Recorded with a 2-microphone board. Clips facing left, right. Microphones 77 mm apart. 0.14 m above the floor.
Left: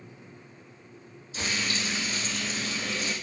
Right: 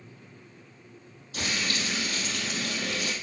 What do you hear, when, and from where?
1.3 s frying: 60° right (ahead or behind), 3.5 m